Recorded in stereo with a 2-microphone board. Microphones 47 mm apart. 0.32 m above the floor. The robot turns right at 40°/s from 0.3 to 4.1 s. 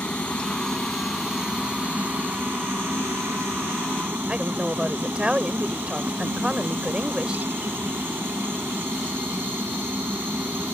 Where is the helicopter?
155° left; by 10.8 s 55° right.